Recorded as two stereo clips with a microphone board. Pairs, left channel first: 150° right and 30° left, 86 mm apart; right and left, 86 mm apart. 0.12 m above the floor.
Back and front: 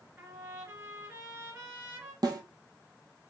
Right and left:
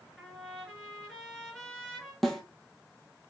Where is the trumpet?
10° right, 2 m.